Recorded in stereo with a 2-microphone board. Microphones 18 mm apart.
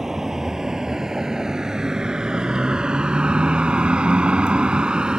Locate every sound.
0.0 s a vehicle: 30° right (ahead or behind); by 5.2 s 55° right (ahead or behind)